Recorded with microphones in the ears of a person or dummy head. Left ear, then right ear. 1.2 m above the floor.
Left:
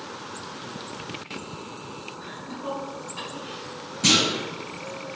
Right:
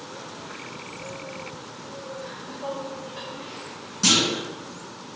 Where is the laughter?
50° right (ahead or behind), 2.5 m; by 3.7 s 75° right (ahead or behind), 3 m.